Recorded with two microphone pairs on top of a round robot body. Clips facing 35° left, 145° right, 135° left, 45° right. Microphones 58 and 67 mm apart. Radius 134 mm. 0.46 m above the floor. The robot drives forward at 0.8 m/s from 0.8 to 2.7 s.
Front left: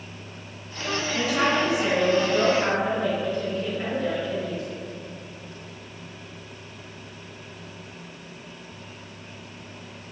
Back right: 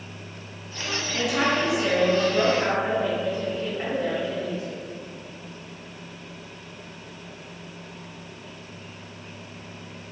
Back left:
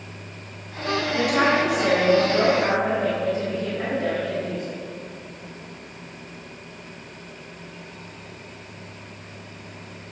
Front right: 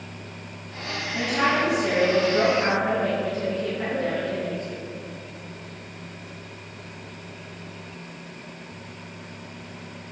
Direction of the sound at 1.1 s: 130° left.